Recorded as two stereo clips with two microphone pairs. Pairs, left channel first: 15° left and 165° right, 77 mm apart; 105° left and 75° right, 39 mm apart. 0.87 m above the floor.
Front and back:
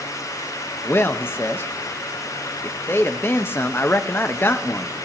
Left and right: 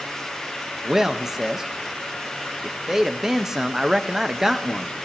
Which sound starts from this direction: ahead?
A man speaking, at 0.8 s.